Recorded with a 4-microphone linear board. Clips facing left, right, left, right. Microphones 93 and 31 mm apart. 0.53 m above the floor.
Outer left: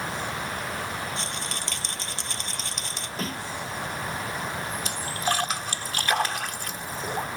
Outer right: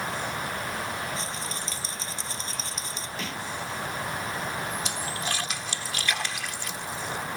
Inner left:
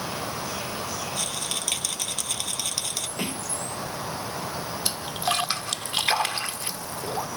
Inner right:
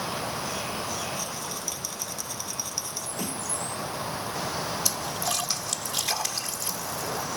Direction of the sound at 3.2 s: 40° left (ahead or behind).